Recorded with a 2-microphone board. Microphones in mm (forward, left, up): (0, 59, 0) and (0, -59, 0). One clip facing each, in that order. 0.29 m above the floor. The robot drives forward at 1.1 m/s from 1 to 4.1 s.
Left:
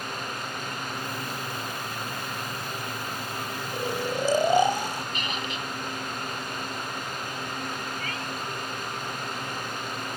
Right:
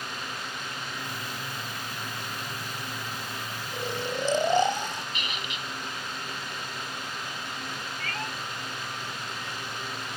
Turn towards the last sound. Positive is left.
turn(degrees=-45)  # may be behind; listen again after turning